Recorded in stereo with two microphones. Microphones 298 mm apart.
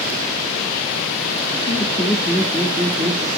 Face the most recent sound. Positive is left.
turn(degrees=-25)  # may be behind; listen again after turning